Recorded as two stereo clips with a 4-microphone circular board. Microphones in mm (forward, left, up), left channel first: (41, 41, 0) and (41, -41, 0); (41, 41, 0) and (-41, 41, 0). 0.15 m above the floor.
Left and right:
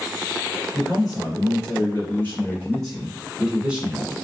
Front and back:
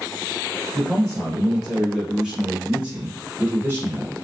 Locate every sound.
0.7 s a man speaking: 70° left, 1.7 m; by 4.1 s 145° right, 1.4 m